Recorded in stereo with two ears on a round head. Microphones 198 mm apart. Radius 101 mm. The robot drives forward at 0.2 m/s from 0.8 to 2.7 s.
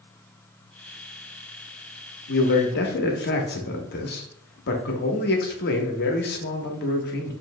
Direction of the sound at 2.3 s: 50° left (ahead or behind).